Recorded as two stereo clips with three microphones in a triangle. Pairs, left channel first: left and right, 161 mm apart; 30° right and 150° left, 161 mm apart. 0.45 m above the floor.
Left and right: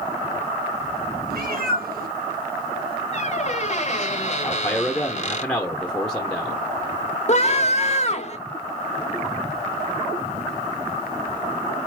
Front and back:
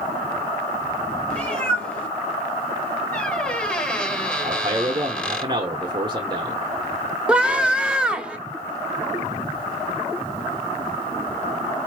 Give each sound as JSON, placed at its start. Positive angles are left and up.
{"t": 1.3, "sound": "a cat meowing", "azimuth_deg": -110, "distance_m": 2.5}
{"t": 3.1, "sound": "a squeak", "azimuth_deg": 50, "distance_m": 1.1}
{"t": 4.4, "sound": "a man speaking", "azimuth_deg": 170, "distance_m": 0.8}
{"t": 7.3, "sound": "a scream", "azimuth_deg": 70, "distance_m": 1.0}